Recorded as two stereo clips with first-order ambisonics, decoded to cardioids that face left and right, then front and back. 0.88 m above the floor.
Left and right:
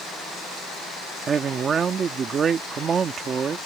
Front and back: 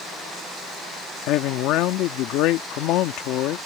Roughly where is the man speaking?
Ahead right.